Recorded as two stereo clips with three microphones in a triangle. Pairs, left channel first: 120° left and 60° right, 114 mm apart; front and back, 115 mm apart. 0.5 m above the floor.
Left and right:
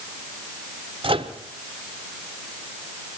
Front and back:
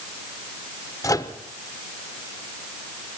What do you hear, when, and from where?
1.0 s a microwave: 50° right, 1.0 m